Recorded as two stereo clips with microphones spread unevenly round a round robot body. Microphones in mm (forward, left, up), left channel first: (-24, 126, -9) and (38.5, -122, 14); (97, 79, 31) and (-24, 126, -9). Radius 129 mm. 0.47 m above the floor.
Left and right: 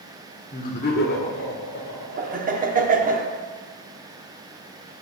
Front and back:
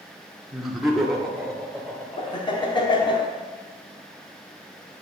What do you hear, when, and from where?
0.5 s laughter: 115° left, 1.6 m; by 3.1 s 65° left, 4.5 m
2.2 s laughter: 75° right, 0.8 m